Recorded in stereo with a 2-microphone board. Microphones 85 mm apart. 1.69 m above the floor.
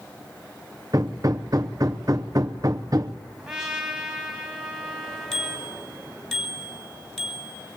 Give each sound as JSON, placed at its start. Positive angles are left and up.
{"t": 0.9, "sound": "hammering", "side_deg": -45, "distance_m": 0.8}
{"t": 3.4, "sound": "a trumpet", "side_deg": 0, "distance_m": 3.5}
{"t": 5.3, "sound": "a bicycle bell", "side_deg": 5, "distance_m": 4.5}